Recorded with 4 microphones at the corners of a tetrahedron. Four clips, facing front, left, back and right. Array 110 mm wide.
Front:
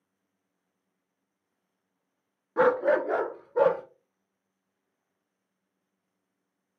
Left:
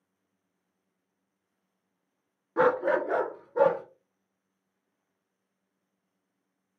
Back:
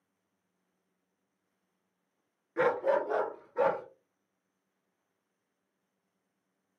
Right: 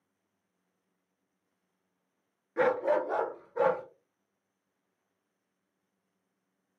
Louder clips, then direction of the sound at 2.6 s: Left 3 dB, front 5 dB; 45° left.